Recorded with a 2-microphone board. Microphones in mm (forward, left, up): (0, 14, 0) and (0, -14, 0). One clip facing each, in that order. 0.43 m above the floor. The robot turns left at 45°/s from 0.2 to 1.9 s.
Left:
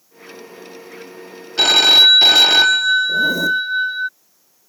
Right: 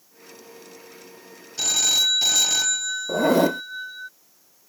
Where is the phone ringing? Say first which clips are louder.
Left 11 dB; 70° left (ahead or behind); by 4.1 s 55° left (ahead or behind).